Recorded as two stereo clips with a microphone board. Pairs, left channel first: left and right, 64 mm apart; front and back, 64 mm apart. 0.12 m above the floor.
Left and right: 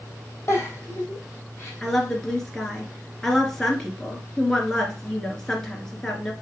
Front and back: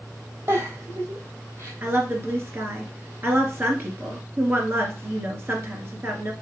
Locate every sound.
0.5 s a giggle: 140° left, 2.5 m
1.8 s a woman speaking: 165° left, 2 m